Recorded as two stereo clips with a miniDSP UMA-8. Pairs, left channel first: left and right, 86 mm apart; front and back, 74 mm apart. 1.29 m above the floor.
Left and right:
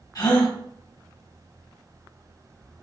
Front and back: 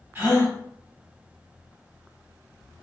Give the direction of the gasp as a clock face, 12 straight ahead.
8 o'clock.